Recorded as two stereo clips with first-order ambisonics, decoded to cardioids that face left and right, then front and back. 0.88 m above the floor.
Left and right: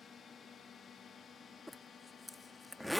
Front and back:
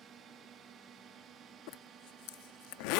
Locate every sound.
0.0 s a drone: 145° left
1.7 s a zipper: straight ahead